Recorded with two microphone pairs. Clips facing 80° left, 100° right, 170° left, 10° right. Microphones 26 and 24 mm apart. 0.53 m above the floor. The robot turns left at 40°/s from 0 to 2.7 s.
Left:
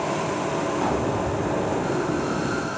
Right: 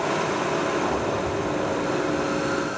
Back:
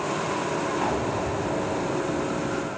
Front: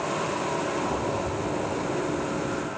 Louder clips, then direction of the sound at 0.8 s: Left 1 dB, back 2 dB; 160° left.